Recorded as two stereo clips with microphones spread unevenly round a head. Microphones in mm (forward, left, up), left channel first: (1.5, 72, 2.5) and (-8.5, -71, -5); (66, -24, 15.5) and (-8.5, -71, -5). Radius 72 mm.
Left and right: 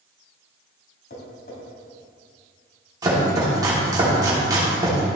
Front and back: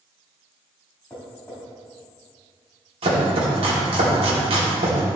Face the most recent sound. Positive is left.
turn(degrees=-160)